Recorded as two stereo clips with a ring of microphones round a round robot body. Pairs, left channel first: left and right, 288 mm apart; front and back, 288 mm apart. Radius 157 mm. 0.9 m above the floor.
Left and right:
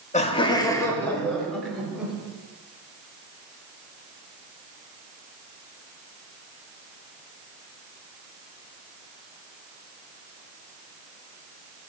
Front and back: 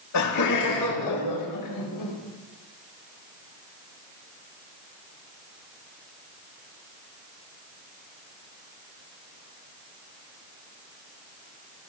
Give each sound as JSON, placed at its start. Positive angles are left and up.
{"t": 0.1, "sound": "laughter", "azimuth_deg": 25, "distance_m": 2.0}